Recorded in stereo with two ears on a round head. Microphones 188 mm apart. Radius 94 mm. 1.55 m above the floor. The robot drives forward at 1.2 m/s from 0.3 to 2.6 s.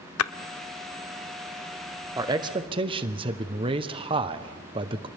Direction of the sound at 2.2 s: 15° right (ahead or behind).